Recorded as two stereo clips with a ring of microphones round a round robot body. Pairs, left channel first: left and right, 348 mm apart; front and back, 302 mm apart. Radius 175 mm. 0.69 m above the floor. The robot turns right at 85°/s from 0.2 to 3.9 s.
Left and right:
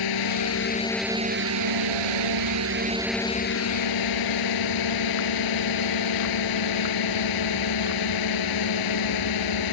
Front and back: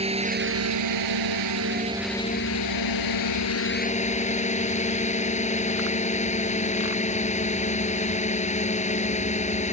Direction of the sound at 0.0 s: 110° left.